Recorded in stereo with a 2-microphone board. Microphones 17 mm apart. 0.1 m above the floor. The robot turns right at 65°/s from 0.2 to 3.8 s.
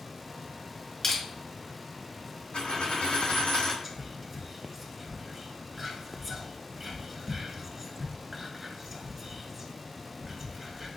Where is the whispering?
Centre (ahead or behind), 1.1 m.